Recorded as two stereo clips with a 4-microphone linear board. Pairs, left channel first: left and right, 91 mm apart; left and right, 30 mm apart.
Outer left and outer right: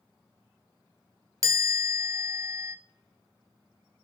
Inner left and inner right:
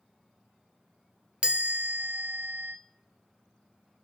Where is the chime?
40° right (ahead or behind), 0.5 m.